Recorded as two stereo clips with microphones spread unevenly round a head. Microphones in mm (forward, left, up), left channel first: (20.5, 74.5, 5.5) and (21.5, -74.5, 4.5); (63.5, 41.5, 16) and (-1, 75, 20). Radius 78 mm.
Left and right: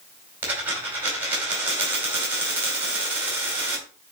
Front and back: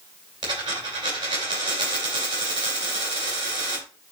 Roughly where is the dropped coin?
Behind.